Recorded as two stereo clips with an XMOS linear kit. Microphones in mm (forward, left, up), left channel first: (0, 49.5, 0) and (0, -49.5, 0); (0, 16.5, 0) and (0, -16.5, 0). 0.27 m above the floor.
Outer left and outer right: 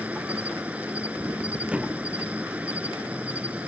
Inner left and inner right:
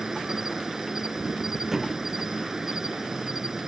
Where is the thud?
10° right (ahead or behind).